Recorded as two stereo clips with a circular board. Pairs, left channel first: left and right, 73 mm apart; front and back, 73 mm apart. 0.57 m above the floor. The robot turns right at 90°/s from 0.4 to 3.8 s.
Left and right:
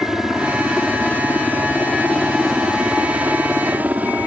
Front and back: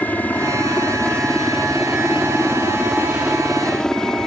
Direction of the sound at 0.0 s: 15° right.